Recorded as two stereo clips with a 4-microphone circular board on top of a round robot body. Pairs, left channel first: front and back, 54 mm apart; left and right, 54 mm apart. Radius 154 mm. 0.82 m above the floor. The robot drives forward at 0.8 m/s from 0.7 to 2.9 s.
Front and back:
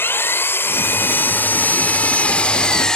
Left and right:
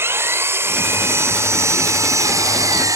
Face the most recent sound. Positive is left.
turn(degrees=-75)